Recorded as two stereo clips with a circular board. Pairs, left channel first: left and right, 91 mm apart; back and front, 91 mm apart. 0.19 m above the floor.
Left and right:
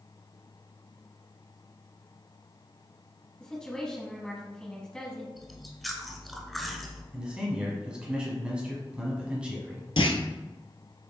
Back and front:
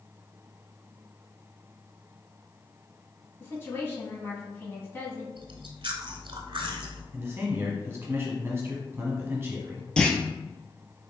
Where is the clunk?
100° left, 0.6 m.